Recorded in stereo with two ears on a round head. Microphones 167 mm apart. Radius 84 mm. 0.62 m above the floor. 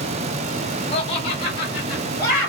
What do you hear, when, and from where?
0.9 s laughter: 35° left (ahead or behind), 0.9 m; by 2.5 s 20° left (ahead or behind), 1.5 m